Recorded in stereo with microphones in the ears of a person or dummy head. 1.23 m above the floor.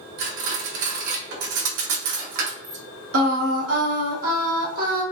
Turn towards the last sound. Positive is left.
turn(degrees=-70)  # may be behind; listen again after turning